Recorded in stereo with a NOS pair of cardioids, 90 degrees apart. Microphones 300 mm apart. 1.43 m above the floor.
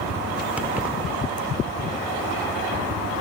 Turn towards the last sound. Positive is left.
turn(degrees=-5)